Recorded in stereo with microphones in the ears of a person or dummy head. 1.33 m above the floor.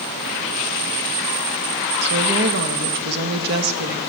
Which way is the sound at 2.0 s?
60° right (ahead or behind).